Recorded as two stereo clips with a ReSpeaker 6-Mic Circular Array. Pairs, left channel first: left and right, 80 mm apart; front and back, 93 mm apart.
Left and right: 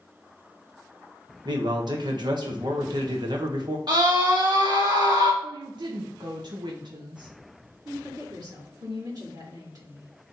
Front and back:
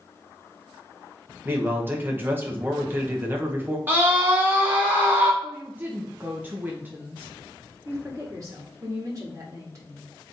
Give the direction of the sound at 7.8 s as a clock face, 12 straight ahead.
4 o'clock.